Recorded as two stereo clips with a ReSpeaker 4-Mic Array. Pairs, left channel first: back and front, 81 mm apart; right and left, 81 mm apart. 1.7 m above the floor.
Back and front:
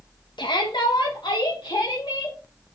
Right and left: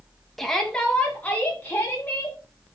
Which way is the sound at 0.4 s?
175° right.